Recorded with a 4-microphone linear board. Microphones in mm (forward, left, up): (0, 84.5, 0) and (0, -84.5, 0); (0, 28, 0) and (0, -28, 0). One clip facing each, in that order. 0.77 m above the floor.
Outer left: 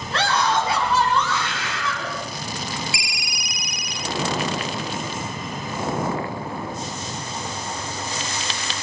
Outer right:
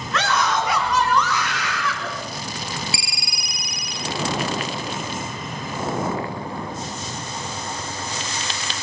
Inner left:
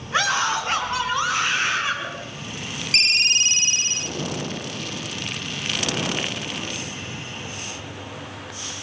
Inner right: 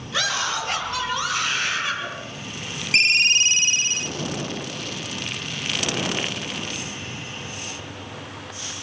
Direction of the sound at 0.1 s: 30° left (ahead or behind).